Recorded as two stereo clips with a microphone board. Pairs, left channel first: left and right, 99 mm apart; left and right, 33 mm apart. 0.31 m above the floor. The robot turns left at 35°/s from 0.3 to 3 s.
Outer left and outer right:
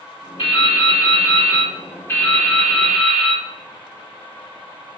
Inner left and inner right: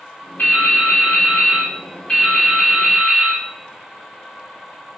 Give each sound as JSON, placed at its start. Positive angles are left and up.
{"t": 0.4, "sound": "dripping", "azimuth_deg": 85, "distance_m": 0.9}